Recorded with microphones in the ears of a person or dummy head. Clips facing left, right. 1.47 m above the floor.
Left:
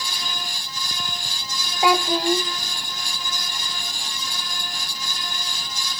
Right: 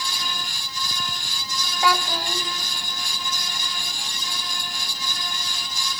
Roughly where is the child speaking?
Left.